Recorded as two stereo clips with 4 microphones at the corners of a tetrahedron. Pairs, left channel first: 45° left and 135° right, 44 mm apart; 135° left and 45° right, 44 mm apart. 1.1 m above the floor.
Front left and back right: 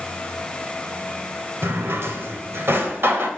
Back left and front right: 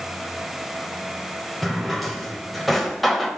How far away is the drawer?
About 1.6 m.